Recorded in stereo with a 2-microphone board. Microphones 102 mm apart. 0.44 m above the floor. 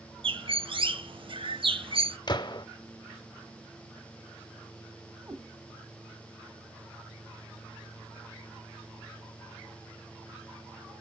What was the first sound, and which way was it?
A bird, 60° right (ahead or behind).